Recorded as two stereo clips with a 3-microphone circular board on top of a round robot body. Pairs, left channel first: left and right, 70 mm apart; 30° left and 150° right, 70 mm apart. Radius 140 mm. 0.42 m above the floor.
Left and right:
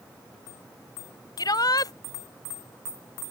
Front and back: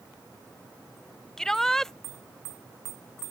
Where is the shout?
115° left.